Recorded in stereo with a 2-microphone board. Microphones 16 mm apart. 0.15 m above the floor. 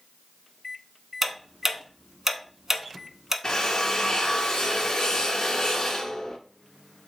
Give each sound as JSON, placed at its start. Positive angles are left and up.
{"t": 1.2, "sound": "ticking", "side_deg": -25, "distance_m": 0.5}
{"t": 3.4, "sound": "a drill", "side_deg": 45, "distance_m": 0.7}